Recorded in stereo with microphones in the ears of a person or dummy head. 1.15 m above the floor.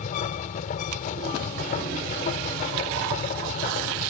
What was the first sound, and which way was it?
A machine running, 50° left (ahead or behind).